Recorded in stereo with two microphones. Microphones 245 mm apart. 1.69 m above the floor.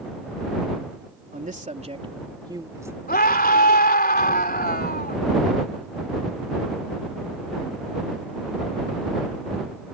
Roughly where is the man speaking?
Right.